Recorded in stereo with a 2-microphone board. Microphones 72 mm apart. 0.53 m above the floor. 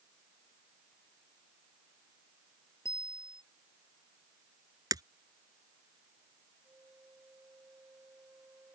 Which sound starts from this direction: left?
A bicycle bell, at 2.9 s.